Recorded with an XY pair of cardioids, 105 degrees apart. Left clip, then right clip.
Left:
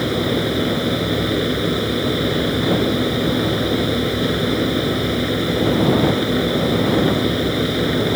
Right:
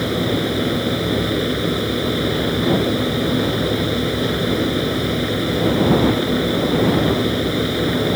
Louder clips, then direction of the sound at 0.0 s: Left 1 dB; 10° left.